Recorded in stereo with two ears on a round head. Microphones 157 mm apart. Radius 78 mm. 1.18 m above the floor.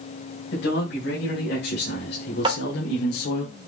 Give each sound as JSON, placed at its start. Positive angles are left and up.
{"t": 0.5, "sound": "a man speaking", "side_deg": 65, "distance_m": 5.0}
{"t": 2.5, "sound": "tapping", "side_deg": -30, "distance_m": 2.0}